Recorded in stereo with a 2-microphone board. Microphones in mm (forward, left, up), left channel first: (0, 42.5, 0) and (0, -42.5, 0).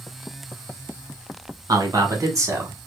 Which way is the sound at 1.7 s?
50° right (ahead or behind).